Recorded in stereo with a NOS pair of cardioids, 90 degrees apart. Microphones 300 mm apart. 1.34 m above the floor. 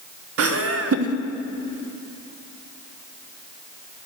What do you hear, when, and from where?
0.4 s laughter: 50° right, 1.1 m